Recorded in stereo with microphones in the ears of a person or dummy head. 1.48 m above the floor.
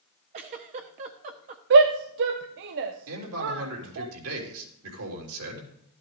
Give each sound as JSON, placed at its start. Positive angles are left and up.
{"t": 0.3, "sound": "a giggle", "side_deg": -30, "distance_m": 0.9}
{"t": 1.7, "sound": "a shout", "side_deg": -50, "distance_m": 0.6}
{"t": 3.1, "sound": "a man speaking", "side_deg": -80, "distance_m": 3.5}